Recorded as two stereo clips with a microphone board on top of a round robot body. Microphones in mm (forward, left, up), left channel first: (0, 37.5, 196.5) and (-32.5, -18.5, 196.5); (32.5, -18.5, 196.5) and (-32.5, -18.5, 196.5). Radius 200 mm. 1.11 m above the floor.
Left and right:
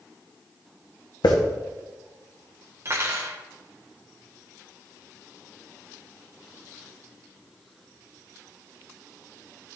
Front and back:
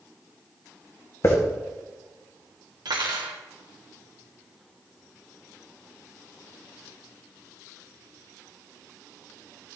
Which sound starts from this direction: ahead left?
A hiss, at 1.2 s.